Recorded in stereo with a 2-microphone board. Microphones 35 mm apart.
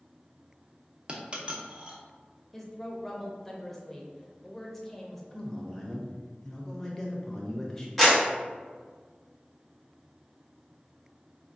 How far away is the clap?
About 1.2 m.